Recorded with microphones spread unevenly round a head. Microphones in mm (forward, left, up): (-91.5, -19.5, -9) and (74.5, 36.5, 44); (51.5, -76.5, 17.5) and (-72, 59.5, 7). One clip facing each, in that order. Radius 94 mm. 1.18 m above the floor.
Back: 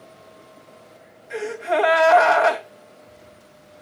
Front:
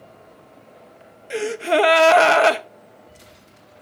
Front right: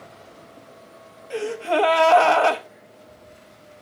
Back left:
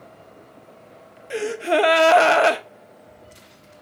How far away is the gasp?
About 0.8 m.